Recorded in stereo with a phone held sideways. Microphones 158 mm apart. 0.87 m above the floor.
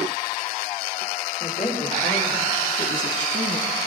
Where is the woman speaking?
45° left (ahead or behind), 3.5 m; by 3.8 s 50° left (ahead or behind), 1.6 m.